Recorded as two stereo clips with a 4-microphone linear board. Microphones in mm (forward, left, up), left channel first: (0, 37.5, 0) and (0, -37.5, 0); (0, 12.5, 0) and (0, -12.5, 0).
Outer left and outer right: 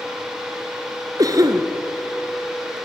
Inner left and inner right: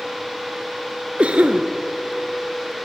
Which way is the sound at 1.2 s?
55° right (ahead or behind).